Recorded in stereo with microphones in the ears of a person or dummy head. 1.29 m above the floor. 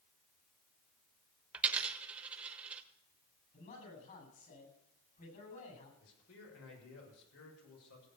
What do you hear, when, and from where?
1.5 s a dropped coin: 10° right (ahead or behind), 1.1 m
3.5 s a man speaking: 45° left (ahead or behind), 8.5 m
6.0 s a man speaking: 75° left (ahead or behind), 6.5 m